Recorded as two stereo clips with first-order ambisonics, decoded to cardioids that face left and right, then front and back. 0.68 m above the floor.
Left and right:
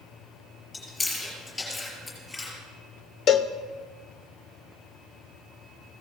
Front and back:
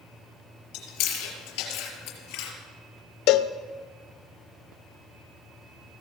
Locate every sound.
0.7 s chewing: 15° left, 5.5 m
3.3 s a cowbell: 30° left, 0.6 m